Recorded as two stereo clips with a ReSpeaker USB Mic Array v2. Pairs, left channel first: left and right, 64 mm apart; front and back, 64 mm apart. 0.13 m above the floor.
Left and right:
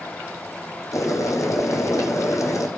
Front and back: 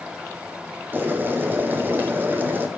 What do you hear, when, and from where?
0.9 s boiling: 120° left, 1.4 m